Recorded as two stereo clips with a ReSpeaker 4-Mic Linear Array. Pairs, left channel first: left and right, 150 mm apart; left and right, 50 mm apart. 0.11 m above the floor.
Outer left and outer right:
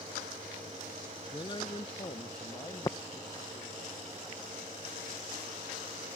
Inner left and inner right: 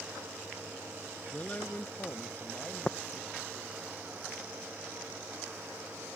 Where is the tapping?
25° left (ahead or behind).